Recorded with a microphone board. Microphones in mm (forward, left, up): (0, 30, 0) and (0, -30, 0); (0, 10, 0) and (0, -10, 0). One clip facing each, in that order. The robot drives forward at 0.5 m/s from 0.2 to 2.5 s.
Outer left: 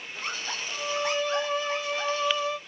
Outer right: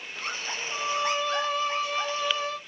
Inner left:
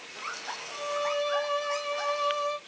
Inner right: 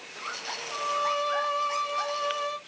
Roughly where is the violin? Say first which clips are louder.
Outer right 1 dB, inner right 2 dB; left.